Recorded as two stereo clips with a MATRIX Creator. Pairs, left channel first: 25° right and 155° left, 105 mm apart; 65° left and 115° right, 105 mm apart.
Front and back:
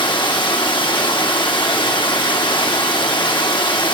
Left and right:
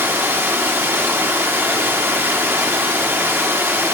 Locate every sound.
0.0 s running water: 50° right, 1.0 m